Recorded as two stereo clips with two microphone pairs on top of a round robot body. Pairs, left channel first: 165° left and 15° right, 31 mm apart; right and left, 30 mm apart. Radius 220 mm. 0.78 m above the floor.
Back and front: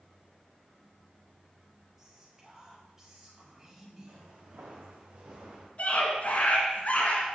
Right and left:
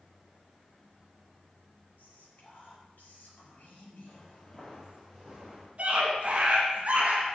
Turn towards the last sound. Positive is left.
turn(degrees=125)